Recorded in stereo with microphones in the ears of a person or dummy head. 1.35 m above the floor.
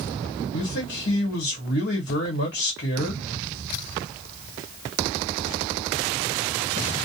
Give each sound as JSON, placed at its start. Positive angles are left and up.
{"t": 0.5, "sound": "a man speaking", "side_deg": 60, "distance_m": 1.0}